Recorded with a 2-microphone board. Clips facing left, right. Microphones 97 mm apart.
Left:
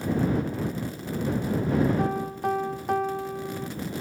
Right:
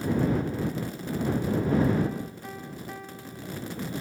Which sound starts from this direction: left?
A piano, at 2.0 s.